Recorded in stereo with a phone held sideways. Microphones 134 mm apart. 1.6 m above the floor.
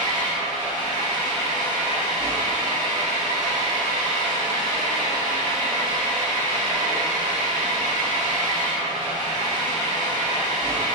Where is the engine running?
65° right (ahead or behind), 1.6 m.